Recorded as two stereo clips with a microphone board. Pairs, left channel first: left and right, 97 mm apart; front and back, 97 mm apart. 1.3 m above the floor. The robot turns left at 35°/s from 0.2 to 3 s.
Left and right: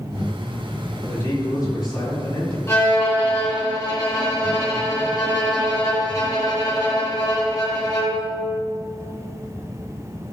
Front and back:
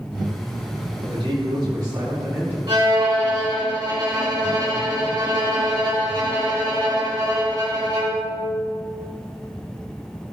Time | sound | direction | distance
1.0 | a man speaking | 160° left | 3.5 m
2.7 | a violin | 145° left | 2.5 m